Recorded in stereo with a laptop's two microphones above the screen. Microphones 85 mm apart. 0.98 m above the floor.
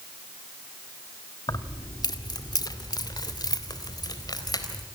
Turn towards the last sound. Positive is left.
turn(degrees=50)  # may be behind; listen again after turning